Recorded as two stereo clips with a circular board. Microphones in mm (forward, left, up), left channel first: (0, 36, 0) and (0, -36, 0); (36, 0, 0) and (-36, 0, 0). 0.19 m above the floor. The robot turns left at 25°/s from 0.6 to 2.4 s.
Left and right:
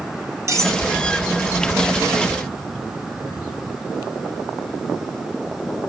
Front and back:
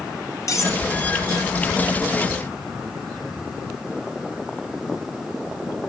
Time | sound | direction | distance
0.5 | cutlery clinking | 45° right | 3 m